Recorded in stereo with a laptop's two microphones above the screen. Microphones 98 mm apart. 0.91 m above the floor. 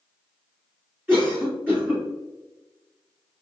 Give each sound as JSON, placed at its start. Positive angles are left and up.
{"t": 1.1, "sound": "a cough", "side_deg": -20, "distance_m": 1.8}